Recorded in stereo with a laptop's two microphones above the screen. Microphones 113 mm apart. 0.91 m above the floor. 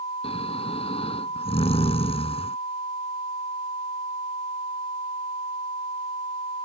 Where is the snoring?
65° left (ahead or behind).